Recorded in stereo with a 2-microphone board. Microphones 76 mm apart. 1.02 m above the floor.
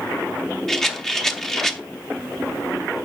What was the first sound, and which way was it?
A rattle, 5° left (ahead or behind).